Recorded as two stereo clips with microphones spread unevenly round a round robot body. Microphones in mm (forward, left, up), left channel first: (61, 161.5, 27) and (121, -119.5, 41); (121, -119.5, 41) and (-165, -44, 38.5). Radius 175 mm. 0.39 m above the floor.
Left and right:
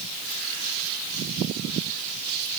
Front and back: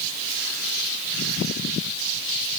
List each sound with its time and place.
Only background noise.